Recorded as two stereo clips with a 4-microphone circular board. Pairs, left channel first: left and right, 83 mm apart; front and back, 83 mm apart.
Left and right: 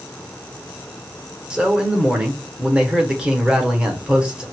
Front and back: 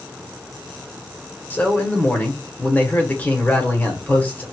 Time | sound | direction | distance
1.5 | a man speaking | 25° right | 1.3 m